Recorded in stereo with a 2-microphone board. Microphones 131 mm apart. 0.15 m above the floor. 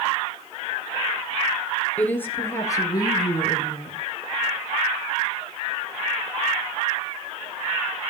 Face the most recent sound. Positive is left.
turn(degrees=45)  # may be behind; listen again after turning